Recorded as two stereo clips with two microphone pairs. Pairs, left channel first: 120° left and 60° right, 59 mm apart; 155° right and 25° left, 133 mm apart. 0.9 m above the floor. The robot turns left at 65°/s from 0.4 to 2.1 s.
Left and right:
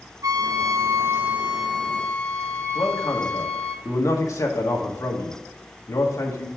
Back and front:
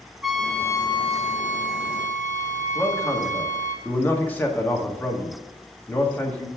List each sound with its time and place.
0.2 s a trumpet: 60° right, 1.0 m; by 3.8 s 175° right, 1.0 m
2.8 s a man speaking: 130° left, 1.5 m